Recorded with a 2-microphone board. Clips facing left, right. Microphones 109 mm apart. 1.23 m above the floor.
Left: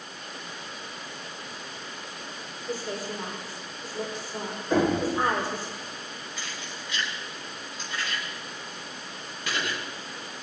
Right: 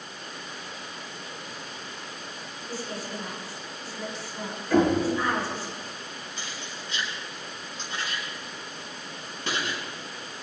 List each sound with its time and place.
2.7 s a woman speaking: 55° left (ahead or behind), 5 m
4.7 s knocking: 25° left (ahead or behind), 5 m
6.4 s keys jangling: 30° right (ahead or behind), 6.5 m